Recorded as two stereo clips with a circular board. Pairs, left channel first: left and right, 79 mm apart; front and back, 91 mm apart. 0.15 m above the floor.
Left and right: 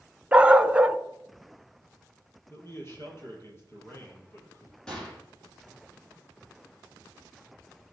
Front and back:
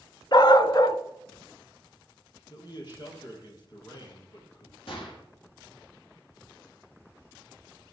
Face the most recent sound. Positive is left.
turn(degrees=10)